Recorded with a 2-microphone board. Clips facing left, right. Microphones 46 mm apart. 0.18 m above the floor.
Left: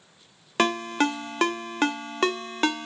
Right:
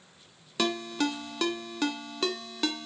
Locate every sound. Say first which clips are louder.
0.6 s a ringtone: left 6 dB; 50° left (ahead or behind), 0.5 m